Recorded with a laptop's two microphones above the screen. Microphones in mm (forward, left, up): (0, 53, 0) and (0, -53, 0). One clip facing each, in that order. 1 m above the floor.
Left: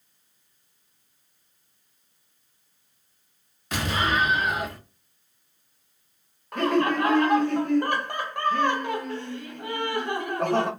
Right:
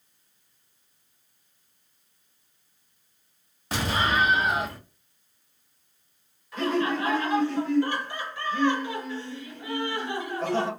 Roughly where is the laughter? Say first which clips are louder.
Left 3 dB; left.